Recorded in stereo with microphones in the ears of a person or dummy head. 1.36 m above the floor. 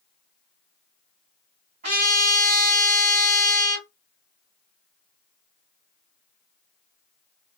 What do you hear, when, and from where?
1.8 s a trumpet: 40° right (ahead or behind), 2.5 m